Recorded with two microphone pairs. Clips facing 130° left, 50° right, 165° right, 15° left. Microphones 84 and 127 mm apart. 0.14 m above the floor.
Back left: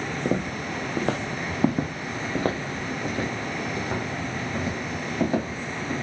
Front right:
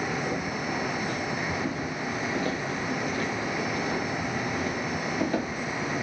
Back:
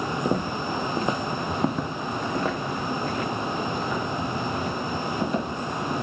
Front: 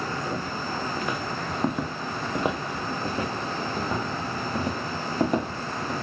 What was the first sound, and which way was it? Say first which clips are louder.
Footsteps: back left 3 dB, back 5 dB; 155° left.